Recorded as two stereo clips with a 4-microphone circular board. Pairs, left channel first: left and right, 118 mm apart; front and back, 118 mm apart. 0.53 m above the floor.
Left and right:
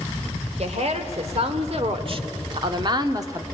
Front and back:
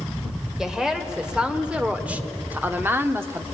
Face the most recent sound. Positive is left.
turn(degrees=-130)